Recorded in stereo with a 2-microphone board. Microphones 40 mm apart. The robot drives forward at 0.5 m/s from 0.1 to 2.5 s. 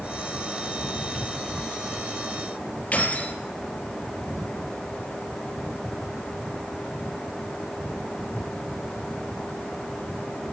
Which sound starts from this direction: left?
Keys jangling, at 2.9 s.